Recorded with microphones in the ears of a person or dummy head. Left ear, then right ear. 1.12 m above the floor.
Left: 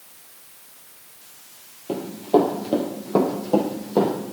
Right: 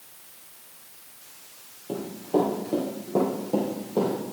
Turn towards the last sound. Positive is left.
turn(degrees=60)  # may be behind; listen again after turning